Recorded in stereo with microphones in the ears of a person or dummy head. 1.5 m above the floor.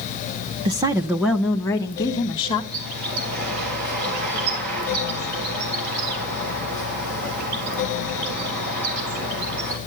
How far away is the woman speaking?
About 0.6 m.